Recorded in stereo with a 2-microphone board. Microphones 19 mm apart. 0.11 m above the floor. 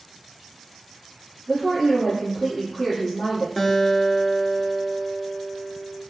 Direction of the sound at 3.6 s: 10° left (ahead or behind).